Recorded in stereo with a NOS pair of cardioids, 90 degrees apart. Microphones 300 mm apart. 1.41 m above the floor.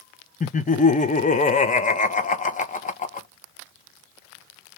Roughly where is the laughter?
Ahead left.